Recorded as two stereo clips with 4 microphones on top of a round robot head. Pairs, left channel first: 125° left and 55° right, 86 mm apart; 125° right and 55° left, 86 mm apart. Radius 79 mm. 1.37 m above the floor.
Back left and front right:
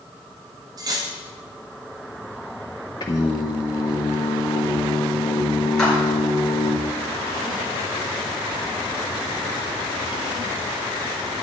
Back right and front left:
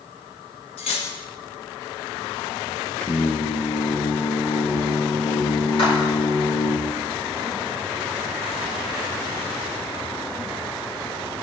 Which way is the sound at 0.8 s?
105° right.